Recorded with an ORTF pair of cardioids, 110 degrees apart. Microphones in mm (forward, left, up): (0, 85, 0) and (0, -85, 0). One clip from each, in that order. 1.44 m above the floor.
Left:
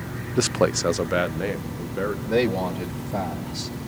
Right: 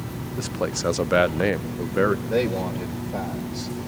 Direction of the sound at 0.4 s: 50° left.